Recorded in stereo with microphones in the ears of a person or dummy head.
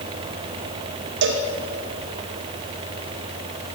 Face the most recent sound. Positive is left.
turn(degrees=-60)  # may be behind; listen again after turning